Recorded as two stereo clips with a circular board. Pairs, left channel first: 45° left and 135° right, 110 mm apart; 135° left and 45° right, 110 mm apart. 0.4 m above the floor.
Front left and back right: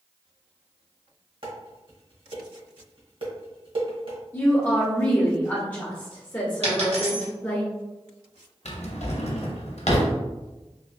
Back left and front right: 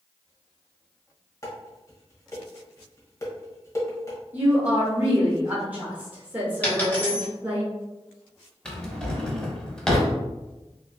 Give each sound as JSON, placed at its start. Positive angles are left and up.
{"t": 1.4, "sound": "dishes clattering", "azimuth_deg": -165, "distance_m": 1.1}
{"t": 4.3, "sound": "a woman speaking", "azimuth_deg": 5, "distance_m": 1.0}
{"t": 6.6, "sound": "a dropped coin", "azimuth_deg": -150, "distance_m": 1.6}
{"t": 8.7, "sound": "a drawer", "azimuth_deg": 55, "distance_m": 0.6}